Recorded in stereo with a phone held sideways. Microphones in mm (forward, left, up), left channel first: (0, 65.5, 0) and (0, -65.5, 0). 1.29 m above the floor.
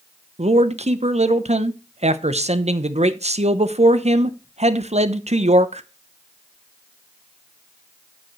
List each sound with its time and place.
0.4 s a man speaking: 55° right (ahead or behind), 0.8 m